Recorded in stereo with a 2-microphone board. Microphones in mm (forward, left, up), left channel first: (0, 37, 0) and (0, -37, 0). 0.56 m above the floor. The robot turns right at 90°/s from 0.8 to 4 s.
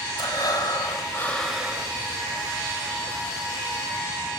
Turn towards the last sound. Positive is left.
turn(degrees=45)